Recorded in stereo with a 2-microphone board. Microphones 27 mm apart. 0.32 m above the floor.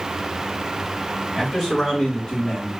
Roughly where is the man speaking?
Centre.